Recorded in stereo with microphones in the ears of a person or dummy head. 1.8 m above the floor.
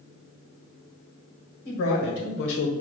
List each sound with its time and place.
1.6 s a man speaking: 60° left (ahead or behind), 1.7 m; by 2.7 s 40° left (ahead or behind), 0.7 m